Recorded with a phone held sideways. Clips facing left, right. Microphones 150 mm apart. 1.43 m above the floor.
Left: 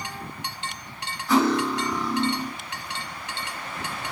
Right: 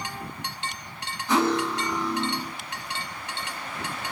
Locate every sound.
1.3 s cutlery clinking: 20° right (ahead or behind), 2 m